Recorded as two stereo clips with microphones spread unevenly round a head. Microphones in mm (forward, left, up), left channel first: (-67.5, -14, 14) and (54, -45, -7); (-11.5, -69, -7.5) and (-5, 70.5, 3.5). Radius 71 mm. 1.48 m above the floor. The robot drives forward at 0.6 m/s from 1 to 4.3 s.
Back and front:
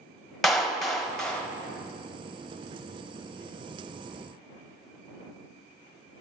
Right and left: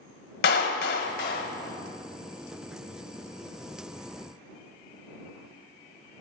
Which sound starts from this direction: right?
A clap, at 0.4 s.